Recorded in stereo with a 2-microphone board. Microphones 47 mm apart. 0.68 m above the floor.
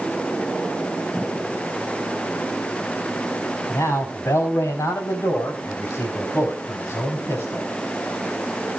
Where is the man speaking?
70° left (ahead or behind), 4.5 m; by 7.7 s 55° left (ahead or behind), 6.5 m.